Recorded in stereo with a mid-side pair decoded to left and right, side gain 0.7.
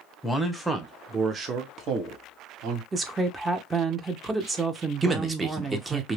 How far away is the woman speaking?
About 0.9 m.